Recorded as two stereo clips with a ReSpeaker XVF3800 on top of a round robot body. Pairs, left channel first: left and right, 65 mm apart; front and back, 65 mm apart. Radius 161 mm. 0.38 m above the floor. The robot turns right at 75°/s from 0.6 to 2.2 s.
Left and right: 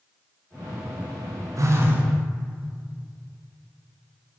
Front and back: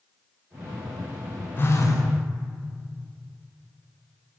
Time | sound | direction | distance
1.6 | a phone buzzing | 60° right | 0.6 m